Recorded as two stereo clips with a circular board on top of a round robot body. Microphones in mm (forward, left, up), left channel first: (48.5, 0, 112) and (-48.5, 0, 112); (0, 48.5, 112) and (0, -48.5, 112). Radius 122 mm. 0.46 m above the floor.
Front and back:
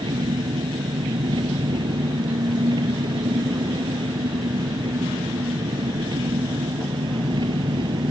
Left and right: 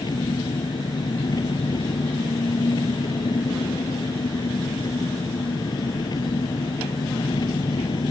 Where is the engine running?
140° left.